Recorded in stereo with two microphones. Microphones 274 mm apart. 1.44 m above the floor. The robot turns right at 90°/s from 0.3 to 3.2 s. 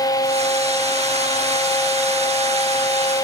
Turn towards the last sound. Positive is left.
No sound to turn to.